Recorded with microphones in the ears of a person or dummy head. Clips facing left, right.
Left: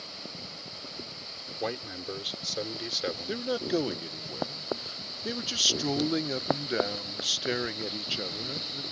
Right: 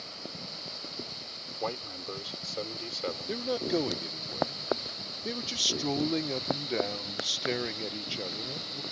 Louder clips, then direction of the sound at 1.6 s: Left 2 dB; 20° left (ahead or behind).